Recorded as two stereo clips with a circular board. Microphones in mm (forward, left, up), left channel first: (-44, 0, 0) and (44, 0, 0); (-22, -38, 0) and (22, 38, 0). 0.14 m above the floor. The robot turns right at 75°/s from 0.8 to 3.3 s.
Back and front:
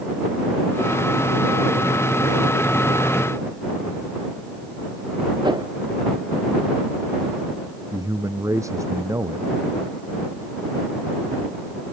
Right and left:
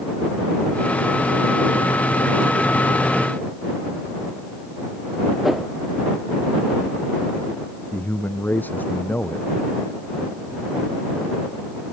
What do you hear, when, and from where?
5.4 s a whoosh: 30° right
7.9 s a man speaking: 50° right